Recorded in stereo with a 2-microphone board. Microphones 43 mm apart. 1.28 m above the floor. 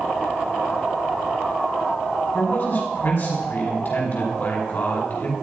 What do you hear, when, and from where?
2.3 s a man speaking: 50° left (ahead or behind), 5 m